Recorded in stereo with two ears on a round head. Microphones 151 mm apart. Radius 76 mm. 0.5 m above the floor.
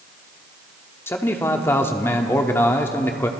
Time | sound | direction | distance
1.1 | a man speaking | 15° left (ahead or behind) | 0.8 m